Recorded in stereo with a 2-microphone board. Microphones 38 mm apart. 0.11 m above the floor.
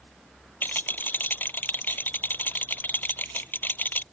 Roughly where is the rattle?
Left.